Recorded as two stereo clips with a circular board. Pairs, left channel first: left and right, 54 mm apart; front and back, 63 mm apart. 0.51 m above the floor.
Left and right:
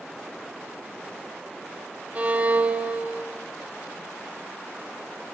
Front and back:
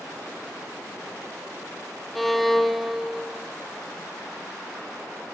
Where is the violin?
90° right, 0.6 m.